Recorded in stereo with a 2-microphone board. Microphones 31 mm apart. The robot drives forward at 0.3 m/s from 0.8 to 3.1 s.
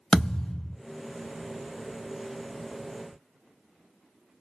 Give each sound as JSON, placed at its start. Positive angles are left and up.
{"t": 0.1, "sound": "a thud", "side_deg": 25, "distance_m": 0.7}